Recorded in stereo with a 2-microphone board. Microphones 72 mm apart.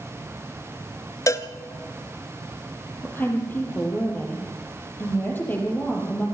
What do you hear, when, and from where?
1.3 s a cowbell: 45° left (ahead or behind), 0.8 m
3.0 s a woman speaking: 25° left (ahead or behind), 5.5 m